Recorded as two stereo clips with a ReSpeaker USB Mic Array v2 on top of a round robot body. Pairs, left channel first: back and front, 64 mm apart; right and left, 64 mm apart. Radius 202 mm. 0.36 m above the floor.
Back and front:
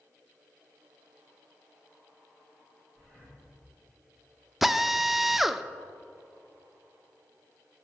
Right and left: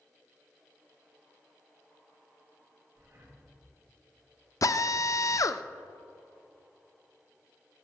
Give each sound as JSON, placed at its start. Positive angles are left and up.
{"t": 3.0, "sound": "breathing", "azimuth_deg": 115, "distance_m": 3.5}
{"t": 4.6, "sound": "a drill", "azimuth_deg": -85, "distance_m": 0.5}